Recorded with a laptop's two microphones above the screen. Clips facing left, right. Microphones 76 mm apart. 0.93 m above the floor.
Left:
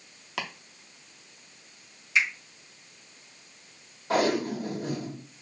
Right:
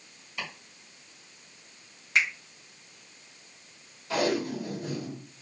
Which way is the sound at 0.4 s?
85° left.